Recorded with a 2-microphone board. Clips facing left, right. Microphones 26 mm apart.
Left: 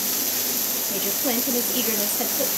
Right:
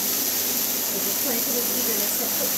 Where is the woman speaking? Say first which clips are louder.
Left 5 dB; 65° left (ahead or behind), 3 m.